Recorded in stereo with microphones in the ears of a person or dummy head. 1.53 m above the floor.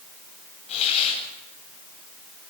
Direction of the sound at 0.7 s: 40° left (ahead or behind).